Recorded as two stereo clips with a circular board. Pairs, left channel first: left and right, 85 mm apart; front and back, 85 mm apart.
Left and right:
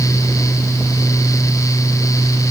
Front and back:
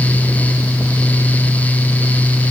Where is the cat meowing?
No cat meowing in this recording.